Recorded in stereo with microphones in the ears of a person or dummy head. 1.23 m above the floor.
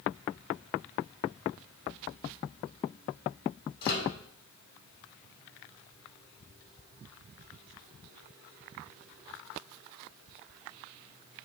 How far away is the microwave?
About 2 m.